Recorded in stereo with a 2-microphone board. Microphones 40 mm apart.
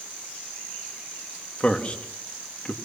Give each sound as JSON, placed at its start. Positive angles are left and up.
{"t": 1.6, "sound": "a man speaking", "side_deg": 35, "distance_m": 2.5}